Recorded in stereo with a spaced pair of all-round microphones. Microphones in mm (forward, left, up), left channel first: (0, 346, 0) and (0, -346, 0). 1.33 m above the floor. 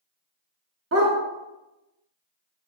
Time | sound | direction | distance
0.9 | a dog barking | 20° right (ahead or behind) | 0.9 m